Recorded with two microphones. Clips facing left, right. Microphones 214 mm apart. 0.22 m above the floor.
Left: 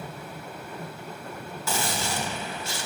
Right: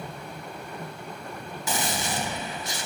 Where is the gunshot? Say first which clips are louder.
Even; 20° right (ahead or behind), 0.8 m.